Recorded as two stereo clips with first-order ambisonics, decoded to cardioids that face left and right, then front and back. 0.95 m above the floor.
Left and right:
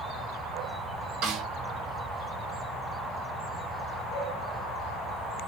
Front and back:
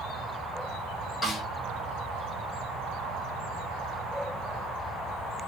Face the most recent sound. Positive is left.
turn(degrees=-70)